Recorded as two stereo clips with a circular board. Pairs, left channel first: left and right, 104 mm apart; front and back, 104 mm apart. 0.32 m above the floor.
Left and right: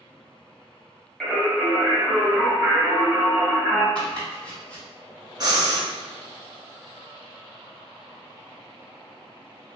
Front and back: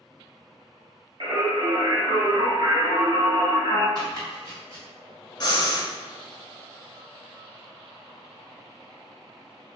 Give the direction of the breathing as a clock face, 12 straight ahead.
1 o'clock.